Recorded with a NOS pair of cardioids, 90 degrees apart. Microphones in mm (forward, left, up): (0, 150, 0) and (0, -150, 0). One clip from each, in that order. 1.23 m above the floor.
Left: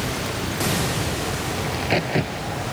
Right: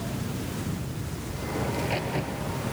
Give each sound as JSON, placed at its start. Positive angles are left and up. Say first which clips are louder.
{"t": 1.6, "sound": "a crack", "louder": "left 7 dB", "azimuth_deg": 65}